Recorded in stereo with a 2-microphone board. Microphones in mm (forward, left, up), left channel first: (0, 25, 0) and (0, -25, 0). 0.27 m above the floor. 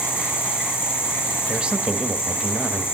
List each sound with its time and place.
0.0 s an insect: 50° left (ahead or behind), 5 m
1.5 s a man speaking: 20° right (ahead or behind), 1.0 m